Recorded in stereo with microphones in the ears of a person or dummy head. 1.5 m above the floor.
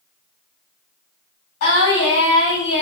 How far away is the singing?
About 1.6 m.